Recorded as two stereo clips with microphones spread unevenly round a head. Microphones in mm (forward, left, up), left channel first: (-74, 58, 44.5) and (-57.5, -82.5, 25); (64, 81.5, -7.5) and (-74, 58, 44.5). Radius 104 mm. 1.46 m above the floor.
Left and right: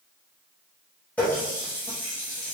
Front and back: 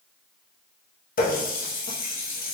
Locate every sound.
1.2 s a running tap: 25° left, 0.8 m